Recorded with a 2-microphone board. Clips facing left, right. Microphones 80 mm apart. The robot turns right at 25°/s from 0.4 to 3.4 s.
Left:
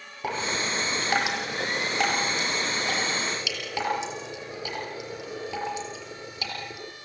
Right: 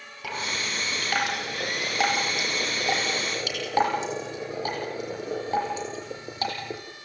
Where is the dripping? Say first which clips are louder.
Left 3 dB; 30° left (ahead or behind), 6 m; by 6.8 s 45° right (ahead or behind), 6 m.